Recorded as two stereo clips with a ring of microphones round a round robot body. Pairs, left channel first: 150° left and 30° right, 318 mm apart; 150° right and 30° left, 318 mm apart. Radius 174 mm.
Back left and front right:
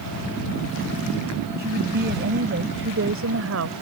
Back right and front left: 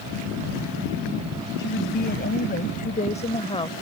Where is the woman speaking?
90° right; by 3.7 s 75° right.